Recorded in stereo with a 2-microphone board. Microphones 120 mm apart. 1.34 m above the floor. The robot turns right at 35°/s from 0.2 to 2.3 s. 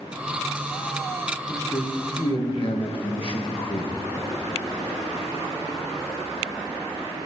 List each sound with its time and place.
1.5 s a man speaking: 20° left (ahead or behind), 1.3 m; by 3.9 s 50° left (ahead or behind), 1.3 m